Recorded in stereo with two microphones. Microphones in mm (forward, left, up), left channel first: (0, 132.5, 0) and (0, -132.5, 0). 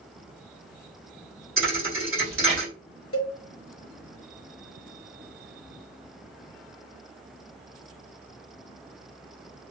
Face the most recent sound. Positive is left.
turn(degrees=55)  # may be behind; listen again after turning